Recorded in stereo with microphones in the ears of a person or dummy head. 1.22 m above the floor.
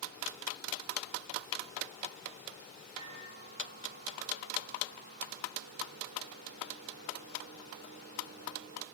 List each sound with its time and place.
3.0 s a microwave: 50° right (ahead or behind), 4 m